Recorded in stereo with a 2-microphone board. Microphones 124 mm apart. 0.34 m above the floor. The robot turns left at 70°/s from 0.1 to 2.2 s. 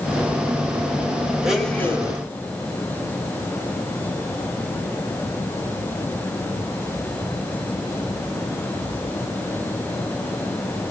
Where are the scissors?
No scissors in this recording.